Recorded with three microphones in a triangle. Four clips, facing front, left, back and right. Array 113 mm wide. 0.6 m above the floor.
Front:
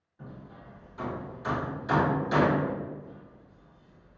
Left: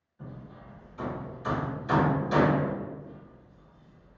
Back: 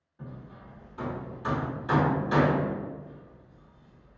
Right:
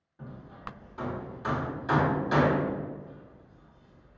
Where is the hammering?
110° right, 1.7 m.